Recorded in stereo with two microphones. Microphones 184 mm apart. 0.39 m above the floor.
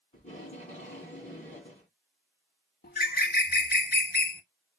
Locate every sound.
0.1 s tape being pulled: 40° left (ahead or behind), 2.5 m
2.8 s a bird: 60° left (ahead or behind), 0.5 m